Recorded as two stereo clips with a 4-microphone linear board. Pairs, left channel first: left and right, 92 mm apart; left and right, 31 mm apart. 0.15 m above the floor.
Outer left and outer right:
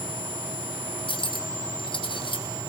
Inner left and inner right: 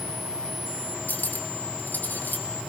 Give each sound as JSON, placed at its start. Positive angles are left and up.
{"t": 1.1, "sound": "cutlery clinking", "side_deg": 70, "distance_m": 3.5}